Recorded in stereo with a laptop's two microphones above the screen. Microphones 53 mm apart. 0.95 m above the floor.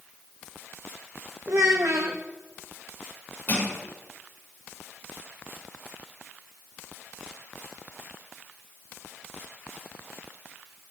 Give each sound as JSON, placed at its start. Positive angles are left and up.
{"t": 1.5, "sound": "a child speaking", "side_deg": -70, "distance_m": 0.7}
{"t": 3.5, "sound": "crushing", "side_deg": 35, "distance_m": 5.5}